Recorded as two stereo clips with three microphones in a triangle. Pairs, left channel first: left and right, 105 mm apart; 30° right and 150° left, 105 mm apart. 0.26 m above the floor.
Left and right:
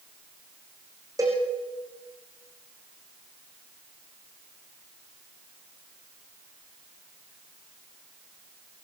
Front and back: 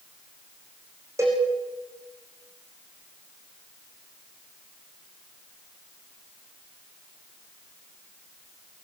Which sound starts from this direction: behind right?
A cowbell, at 1.2 s.